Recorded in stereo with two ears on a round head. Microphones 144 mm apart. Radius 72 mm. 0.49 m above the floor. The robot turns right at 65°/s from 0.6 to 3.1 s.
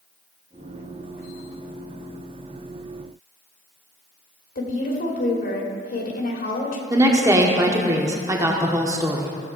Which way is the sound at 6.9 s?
20° right (ahead or behind).